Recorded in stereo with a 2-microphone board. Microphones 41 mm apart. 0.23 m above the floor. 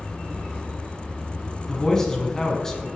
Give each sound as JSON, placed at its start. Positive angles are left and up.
{"t": 1.7, "sound": "a man speaking", "side_deg": 15, "distance_m": 2.0}